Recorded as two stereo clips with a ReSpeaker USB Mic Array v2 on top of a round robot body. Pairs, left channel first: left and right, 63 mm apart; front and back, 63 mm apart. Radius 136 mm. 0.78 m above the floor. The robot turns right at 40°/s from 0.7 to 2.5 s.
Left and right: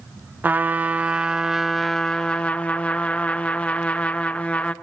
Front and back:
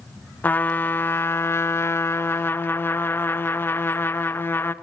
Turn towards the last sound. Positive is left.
turn(degrees=30)